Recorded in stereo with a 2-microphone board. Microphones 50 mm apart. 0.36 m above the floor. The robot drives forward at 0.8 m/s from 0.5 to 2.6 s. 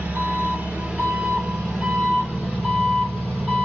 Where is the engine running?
30° right (ahead or behind), 1.4 m; by 3.6 s 15° right (ahead or behind), 3 m.